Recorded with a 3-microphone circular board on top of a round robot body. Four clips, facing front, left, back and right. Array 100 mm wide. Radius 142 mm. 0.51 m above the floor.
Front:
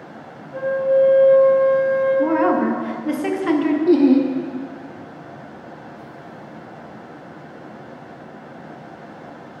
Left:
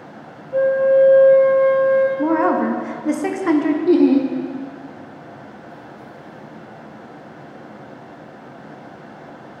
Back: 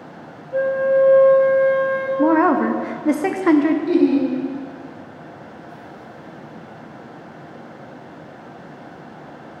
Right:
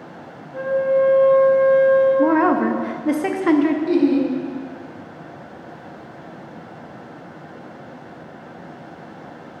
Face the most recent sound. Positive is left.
turn(degrees=40)